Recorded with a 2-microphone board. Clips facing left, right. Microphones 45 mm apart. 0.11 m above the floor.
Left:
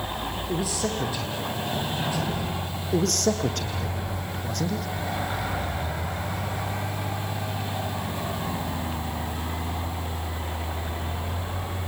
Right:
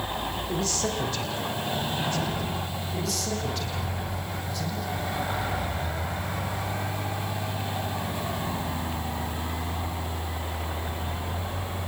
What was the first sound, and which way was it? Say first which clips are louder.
A man speaking: left 2 dB; 10° left (ahead or behind).